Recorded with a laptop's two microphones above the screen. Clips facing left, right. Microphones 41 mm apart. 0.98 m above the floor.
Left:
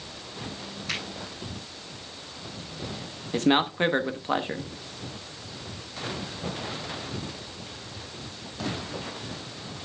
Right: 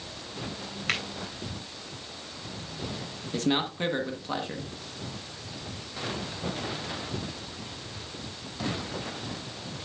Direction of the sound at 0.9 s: 55° right (ahead or behind).